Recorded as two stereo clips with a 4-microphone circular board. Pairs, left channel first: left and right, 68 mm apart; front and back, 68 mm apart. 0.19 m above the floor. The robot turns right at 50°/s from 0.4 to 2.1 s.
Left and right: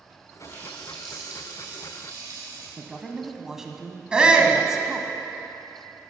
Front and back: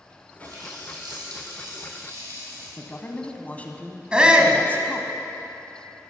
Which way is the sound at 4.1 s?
135° right.